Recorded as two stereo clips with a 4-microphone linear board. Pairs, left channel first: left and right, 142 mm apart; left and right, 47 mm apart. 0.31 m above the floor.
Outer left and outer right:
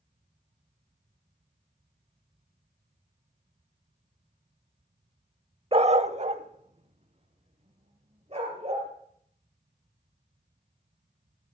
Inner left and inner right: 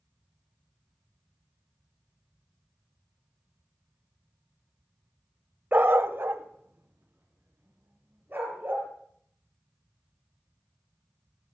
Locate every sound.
5.7 s a dog barking: 40° right (ahead or behind), 0.5 m; by 8.9 s 45° right (ahead or behind), 4 m